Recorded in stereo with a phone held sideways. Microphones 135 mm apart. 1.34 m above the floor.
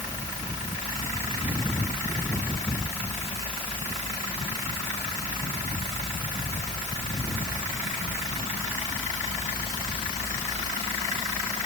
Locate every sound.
Only background noise.